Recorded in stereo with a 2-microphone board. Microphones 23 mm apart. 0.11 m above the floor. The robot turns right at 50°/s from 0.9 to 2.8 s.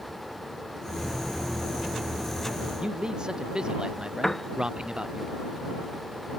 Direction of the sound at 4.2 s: 15° left (ahead or behind).